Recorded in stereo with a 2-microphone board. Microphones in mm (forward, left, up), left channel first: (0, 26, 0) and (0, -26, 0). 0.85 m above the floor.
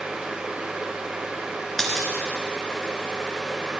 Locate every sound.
1.8 s a dropped coin: 5° left (ahead or behind), 1.5 m